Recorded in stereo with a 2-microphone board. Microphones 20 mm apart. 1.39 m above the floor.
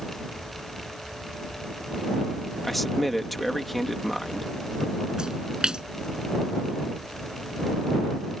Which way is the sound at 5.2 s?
40° right (ahead or behind).